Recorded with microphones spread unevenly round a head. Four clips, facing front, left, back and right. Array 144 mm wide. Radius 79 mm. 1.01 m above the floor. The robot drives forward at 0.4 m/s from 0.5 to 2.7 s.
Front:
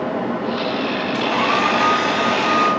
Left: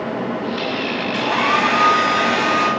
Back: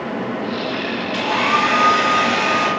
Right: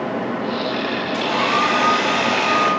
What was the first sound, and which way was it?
A hair dryer, 135° left.